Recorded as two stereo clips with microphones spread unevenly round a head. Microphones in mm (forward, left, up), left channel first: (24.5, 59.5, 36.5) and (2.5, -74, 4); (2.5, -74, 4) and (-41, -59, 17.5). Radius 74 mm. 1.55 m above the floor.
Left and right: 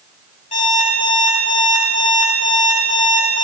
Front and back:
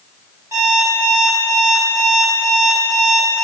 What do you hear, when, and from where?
0.5 s an alarm clock: 120° left, 4.5 m